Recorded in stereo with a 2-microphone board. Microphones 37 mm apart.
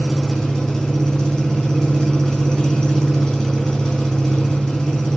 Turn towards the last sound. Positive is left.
turn(degrees=10)  # may be behind; listen again after turning